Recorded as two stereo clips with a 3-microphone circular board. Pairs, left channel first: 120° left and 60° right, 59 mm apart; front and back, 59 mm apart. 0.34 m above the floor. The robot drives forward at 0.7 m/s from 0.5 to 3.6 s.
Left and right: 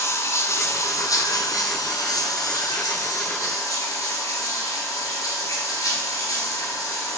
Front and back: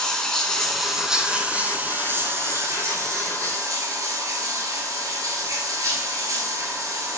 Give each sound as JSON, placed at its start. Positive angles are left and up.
{"t": 0.0, "sound": "running water", "azimuth_deg": 80, "distance_m": 1.3}